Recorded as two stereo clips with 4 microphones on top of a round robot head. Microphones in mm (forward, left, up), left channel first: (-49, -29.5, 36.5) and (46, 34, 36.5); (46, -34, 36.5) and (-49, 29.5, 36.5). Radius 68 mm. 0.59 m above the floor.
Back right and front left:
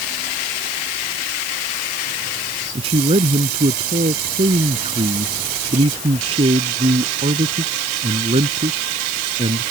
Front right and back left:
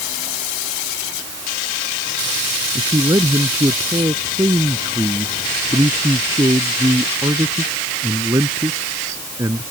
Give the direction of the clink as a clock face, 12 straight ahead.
No clink in this recording.